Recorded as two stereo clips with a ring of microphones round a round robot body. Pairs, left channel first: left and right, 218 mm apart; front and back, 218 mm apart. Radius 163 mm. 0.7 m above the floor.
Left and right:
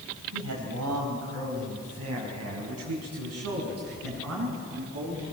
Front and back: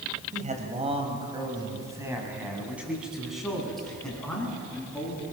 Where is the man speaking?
125° right, 4.5 m; by 5.2 s 80° right, 9.5 m.